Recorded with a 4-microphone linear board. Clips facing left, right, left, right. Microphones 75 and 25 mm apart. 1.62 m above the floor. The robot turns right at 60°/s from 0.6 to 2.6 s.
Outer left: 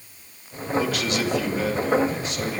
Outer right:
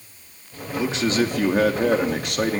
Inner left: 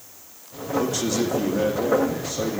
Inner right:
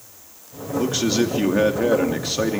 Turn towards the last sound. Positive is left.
turn(degrees=-50)